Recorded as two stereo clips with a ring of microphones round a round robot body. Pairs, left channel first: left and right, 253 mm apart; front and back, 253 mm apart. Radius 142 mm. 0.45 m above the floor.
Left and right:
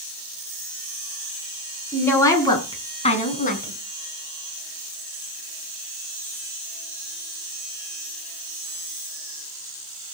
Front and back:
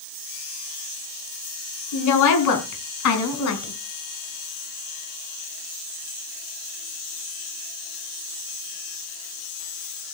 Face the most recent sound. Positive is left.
turn(degrees=35)